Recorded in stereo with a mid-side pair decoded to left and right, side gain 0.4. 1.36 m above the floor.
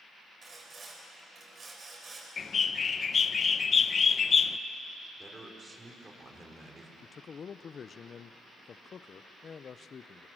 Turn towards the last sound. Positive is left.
turn(degrees=50)